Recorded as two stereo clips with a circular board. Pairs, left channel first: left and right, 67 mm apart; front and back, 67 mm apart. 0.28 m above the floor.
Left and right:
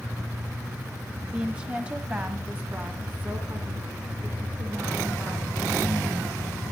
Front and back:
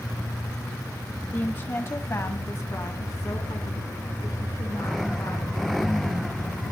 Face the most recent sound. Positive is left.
turn(degrees=-30)